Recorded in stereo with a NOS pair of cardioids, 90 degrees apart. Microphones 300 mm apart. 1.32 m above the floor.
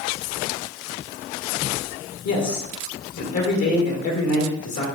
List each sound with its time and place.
2.2 s a man speaking: 65° left, 1.5 m